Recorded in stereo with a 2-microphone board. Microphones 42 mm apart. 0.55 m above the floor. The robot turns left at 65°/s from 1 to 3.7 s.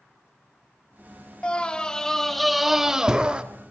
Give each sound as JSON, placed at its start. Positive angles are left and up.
{"t": 1.4, "sound": "a scream", "side_deg": 20, "distance_m": 1.3}